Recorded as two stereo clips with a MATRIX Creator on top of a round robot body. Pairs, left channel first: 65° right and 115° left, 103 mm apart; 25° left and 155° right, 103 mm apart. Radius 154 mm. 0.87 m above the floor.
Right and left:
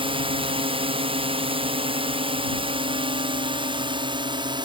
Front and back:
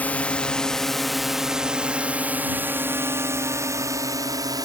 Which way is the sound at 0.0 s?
95° left.